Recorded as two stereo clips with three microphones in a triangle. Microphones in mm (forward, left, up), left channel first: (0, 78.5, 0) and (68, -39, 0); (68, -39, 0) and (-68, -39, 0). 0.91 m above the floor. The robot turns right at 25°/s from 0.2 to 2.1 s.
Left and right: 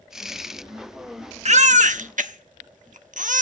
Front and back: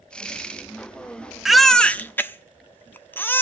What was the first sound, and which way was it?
A baby crying, 95° right.